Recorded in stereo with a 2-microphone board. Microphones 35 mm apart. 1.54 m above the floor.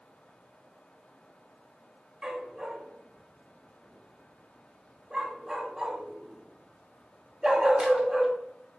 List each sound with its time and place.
2.2 s a dog barking: 20° right (ahead or behind), 1.8 m